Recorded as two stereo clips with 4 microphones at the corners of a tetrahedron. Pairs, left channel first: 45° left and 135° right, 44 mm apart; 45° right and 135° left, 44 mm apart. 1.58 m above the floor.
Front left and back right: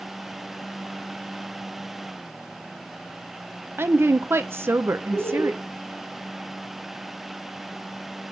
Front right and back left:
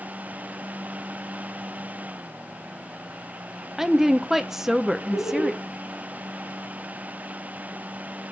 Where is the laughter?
35° right, 4.5 m.